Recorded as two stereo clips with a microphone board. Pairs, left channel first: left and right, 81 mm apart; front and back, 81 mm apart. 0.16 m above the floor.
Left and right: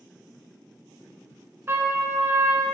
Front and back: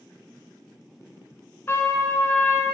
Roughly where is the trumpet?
Ahead right.